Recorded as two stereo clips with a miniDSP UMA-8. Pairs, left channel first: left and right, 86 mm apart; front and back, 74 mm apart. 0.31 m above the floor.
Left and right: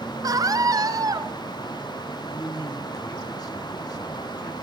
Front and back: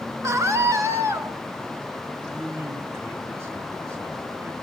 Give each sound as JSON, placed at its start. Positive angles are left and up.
{"t": 0.2, "sound": "a scream", "azimuth_deg": -135, "distance_m": 3.0}
{"t": 2.3, "sound": "a man speaking", "azimuth_deg": 130, "distance_m": 3.0}